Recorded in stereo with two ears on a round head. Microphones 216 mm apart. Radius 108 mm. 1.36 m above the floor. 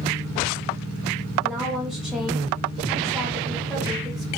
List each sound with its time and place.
1.4 s a woman speaking: centre (ahead or behind), 1.9 m